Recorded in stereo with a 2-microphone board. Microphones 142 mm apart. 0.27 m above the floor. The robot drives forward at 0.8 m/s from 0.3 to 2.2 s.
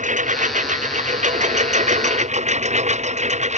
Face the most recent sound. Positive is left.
turn(degrees=-55)  # may be behind; listen again after turning